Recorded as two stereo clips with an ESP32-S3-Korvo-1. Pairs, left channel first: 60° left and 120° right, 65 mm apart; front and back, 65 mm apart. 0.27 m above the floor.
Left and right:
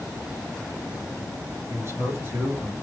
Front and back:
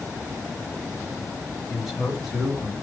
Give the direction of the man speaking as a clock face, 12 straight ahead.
3 o'clock.